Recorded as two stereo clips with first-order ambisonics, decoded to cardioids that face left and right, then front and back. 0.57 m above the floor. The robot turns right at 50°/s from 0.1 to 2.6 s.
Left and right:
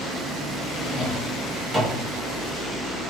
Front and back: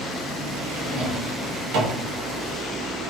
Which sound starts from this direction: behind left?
A drawer, at 0.7 s.